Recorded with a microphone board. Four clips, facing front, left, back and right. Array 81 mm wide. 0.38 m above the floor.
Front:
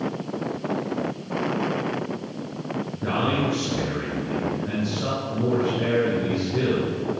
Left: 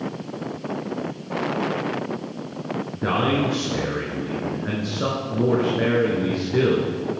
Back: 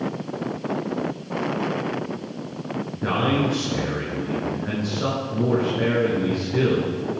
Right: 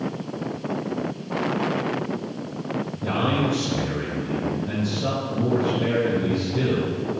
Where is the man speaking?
110° left, 4.5 m.